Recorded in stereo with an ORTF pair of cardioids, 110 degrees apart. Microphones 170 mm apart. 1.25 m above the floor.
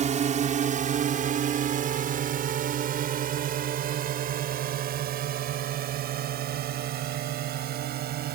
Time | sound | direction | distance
0.0 | a drone | 45° right | ?